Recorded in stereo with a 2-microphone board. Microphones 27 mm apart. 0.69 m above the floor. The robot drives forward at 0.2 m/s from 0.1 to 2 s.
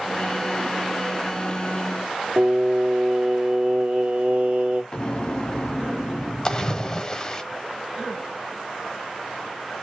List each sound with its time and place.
2.4 s singing: 65° right (ahead or behind), 0.9 m
4.9 s an explosion: 35° left (ahead or behind), 0.9 m
6.5 s a splash: 25° left (ahead or behind), 0.5 m